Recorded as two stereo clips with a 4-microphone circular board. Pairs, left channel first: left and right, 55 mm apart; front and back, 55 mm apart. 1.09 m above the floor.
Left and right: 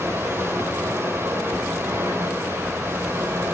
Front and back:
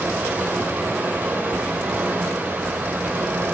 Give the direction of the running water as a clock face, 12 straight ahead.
4 o'clock.